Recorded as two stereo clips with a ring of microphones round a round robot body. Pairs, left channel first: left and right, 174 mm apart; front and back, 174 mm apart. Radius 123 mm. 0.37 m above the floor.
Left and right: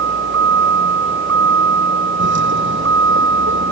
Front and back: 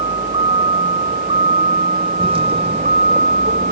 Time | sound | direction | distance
0.0 | a vehicle | 105° right | ?